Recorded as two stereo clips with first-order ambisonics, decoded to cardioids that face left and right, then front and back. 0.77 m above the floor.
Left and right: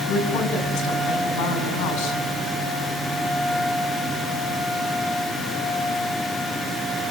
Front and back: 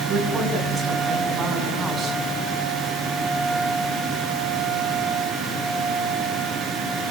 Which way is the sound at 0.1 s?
105° left.